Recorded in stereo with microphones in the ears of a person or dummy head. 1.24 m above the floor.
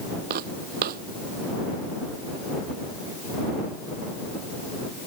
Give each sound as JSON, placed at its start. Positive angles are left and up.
{"t": 0.3, "sound": "footsteps", "side_deg": -50}